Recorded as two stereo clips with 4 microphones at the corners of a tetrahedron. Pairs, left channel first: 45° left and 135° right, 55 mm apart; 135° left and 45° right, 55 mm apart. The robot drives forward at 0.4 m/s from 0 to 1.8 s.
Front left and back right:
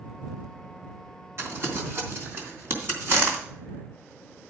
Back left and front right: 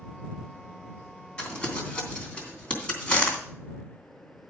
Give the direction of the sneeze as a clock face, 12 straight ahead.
No sneeze in this recording.